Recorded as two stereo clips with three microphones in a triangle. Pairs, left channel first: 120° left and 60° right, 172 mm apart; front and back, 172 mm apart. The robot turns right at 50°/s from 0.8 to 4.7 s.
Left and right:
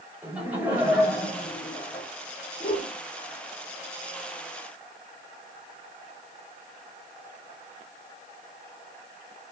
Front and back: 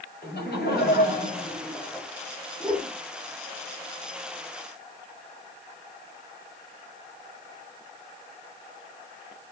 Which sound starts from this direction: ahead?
Laughter, at 0.2 s.